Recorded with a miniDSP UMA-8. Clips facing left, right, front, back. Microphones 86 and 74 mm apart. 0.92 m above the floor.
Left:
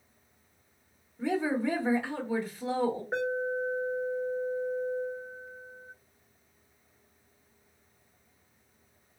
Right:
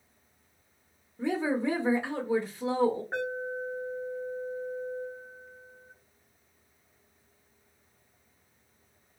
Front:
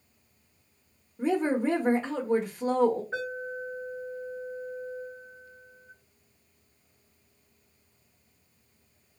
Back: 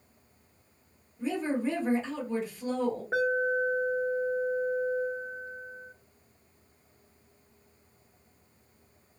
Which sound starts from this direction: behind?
An alarm, at 3.1 s.